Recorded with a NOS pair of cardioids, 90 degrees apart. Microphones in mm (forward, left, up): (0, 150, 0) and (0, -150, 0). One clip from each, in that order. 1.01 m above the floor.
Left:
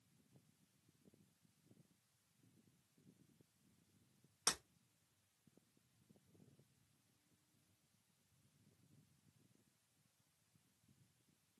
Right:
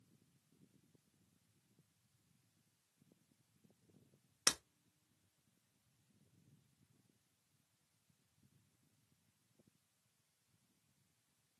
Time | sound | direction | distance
4.5 | breaking glass | 50° right | 1.0 m